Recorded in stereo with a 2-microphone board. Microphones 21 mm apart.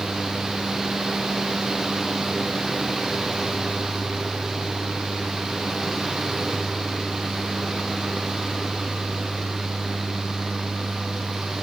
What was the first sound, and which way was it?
Only background noise.